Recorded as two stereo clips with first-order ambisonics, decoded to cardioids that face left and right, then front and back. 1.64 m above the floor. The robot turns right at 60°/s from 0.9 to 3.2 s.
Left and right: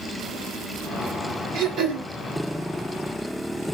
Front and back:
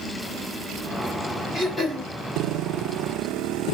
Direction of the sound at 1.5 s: 85° right.